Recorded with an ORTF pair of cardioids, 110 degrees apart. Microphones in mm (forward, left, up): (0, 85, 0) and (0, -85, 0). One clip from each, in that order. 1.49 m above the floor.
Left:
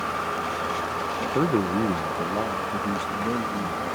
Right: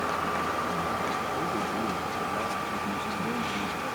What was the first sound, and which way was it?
A man speaking, 70° left.